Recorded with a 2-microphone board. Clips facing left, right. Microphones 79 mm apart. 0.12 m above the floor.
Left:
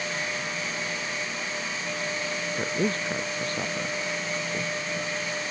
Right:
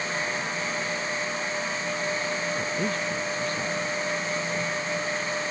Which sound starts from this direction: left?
A woman speaking, at 2.6 s.